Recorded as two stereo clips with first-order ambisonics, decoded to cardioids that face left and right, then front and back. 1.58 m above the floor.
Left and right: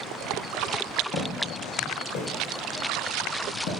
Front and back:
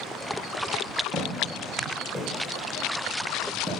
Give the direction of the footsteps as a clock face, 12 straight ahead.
9 o'clock.